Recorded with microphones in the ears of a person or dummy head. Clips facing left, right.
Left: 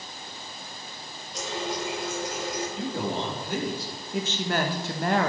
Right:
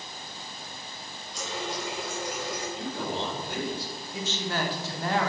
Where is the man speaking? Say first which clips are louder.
Left 3 dB; 65° left (ahead or behind), 3.5 m.